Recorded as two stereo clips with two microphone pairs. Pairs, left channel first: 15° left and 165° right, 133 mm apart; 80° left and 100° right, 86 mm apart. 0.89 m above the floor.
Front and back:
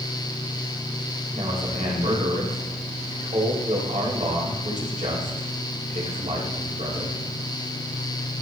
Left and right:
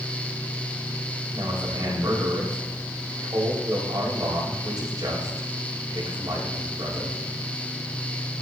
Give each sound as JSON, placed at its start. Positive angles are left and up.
{"t": 1.3, "sound": "a man speaking", "azimuth_deg": -145, "distance_m": 5.0}